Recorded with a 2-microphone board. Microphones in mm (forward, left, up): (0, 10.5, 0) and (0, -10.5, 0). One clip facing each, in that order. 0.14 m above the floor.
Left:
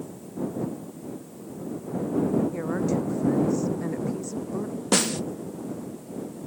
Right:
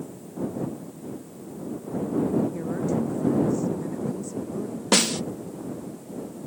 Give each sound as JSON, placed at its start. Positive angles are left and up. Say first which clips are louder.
{"t": 2.5, "sound": "a woman speaking", "louder": "left 1 dB", "side_deg": 30}
{"t": 4.9, "sound": "a snare drum", "louder": "right 2 dB", "side_deg": -25}